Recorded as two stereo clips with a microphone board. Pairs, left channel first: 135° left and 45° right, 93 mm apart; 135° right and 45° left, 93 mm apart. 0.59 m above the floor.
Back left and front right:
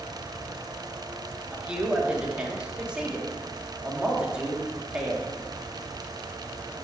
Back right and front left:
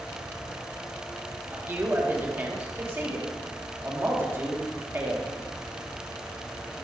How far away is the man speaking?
About 1.3 m.